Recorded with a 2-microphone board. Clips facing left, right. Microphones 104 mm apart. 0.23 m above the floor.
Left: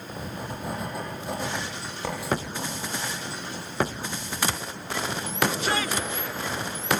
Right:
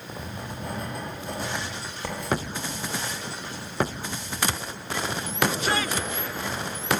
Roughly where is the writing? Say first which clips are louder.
Left 1 dB; centre.